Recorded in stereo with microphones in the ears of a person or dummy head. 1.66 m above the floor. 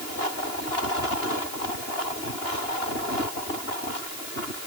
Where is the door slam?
I don't hear a door slam.